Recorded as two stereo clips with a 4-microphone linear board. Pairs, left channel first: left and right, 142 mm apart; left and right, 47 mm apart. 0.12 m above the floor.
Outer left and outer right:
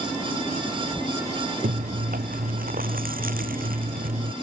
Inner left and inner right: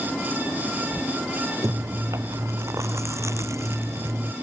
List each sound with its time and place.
1.6 s chewing: 80° right